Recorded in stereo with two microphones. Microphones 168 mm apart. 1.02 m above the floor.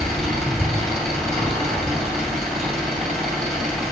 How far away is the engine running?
About 2 m.